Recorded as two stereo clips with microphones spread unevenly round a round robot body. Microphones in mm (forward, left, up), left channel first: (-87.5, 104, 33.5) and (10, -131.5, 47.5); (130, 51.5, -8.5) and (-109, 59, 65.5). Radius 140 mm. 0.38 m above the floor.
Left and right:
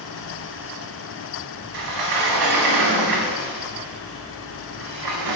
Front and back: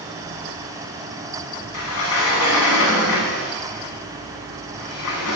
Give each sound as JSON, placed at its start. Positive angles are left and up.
{"t": 1.7, "sound": "a sliding door", "azimuth_deg": -45, "distance_m": 0.6}